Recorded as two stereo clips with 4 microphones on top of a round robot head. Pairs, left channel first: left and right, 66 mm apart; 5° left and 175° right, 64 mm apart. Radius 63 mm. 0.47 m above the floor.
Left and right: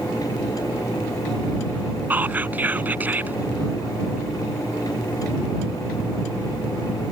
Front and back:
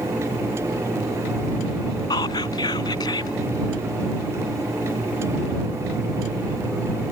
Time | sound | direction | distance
2.1 | whispering | 25° right | ?